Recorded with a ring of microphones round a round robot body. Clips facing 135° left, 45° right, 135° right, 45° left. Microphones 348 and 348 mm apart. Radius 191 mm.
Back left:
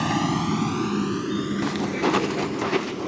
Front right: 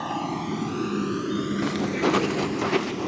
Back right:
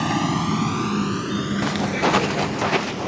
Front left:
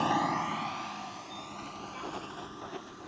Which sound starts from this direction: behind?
A vehicle, at 0.0 s.